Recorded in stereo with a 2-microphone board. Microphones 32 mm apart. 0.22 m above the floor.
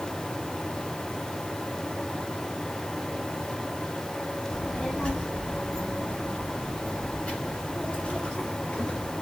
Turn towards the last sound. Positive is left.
turn(degrees=45)  # may be behind; listen again after turning